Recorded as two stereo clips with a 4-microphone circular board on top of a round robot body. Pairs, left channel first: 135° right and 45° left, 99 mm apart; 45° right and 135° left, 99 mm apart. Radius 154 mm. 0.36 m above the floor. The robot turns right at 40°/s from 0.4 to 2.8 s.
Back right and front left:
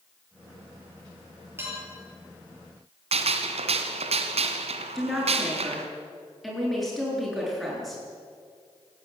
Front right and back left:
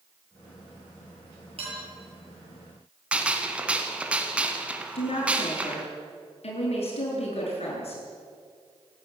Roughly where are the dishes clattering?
Left.